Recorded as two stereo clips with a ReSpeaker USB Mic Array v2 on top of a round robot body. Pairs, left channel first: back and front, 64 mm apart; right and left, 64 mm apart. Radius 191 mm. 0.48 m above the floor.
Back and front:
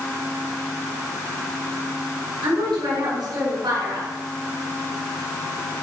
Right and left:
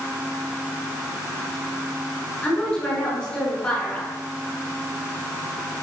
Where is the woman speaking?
20° right, 4.5 m.